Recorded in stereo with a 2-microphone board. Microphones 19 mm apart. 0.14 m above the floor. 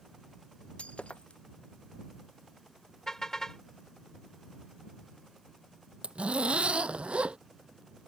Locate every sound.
0.8 s breaking glass: 85° left
3.1 s a car horn: 25° left (ahead or behind)
6.0 s a zipper: 85° right